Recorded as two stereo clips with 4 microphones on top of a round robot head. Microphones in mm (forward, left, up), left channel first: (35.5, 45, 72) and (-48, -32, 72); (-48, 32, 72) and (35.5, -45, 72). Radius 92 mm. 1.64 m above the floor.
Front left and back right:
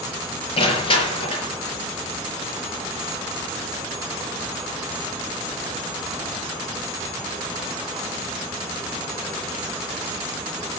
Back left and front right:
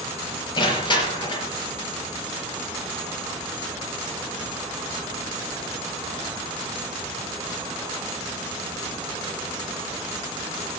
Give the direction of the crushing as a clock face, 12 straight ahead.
9 o'clock.